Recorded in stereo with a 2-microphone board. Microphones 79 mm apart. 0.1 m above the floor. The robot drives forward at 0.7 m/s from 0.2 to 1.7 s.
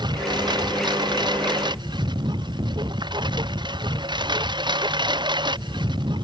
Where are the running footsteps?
I don't hear running footsteps.